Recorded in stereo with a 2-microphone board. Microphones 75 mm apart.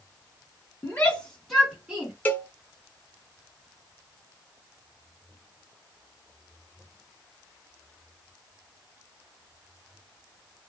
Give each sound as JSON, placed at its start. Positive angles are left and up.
{"t": 0.8, "sound": "a shout", "side_deg": 25, "distance_m": 1.1}
{"t": 2.2, "sound": "a cowbell", "side_deg": 25, "distance_m": 0.8}